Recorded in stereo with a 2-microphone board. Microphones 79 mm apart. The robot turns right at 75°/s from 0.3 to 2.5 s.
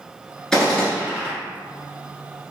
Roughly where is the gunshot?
Behind.